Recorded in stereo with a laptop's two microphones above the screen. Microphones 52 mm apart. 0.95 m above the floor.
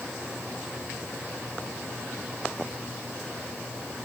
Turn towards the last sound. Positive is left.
No sound to turn to.